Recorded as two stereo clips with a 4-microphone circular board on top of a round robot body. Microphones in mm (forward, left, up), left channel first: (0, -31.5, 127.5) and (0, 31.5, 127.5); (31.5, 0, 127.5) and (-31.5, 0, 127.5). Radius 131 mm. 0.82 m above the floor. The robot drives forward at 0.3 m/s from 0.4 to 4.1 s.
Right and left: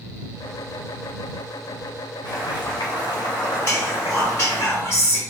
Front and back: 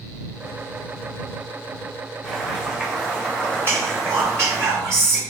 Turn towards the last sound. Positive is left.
turn(degrees=-140)